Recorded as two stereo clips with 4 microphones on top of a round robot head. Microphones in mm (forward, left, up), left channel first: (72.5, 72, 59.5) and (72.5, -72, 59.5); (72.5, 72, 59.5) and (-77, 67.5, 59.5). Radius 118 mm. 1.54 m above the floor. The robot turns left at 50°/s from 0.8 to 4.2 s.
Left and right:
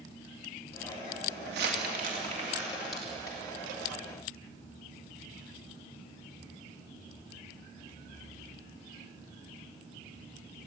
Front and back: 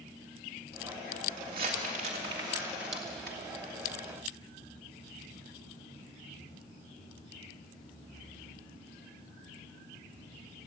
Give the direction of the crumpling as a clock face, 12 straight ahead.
4 o'clock.